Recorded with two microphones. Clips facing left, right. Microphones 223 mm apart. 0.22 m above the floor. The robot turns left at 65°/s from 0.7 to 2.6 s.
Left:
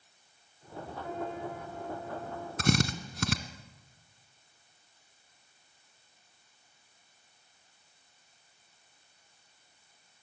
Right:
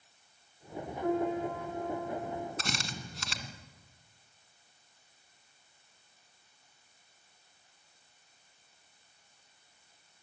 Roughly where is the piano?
Ahead right.